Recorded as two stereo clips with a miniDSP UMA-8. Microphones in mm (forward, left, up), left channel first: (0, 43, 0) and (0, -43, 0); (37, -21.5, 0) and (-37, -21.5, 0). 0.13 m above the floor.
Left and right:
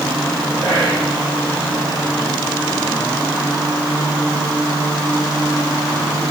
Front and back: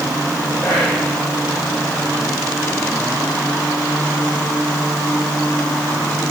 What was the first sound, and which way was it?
Whispering, 80° right.